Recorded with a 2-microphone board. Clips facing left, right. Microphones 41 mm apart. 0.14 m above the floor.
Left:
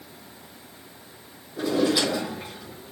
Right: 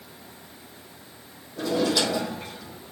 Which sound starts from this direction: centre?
A drawer, at 1.6 s.